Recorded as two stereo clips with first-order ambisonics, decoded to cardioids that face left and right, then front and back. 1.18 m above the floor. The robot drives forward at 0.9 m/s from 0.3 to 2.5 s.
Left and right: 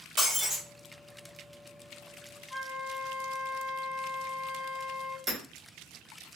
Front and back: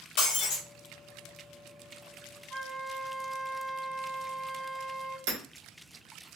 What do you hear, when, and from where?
0.2 s breaking glass: straight ahead, 1.6 m
2.5 s a flute: 140° left, 1.8 m
5.3 s hammering: 175° right, 1.3 m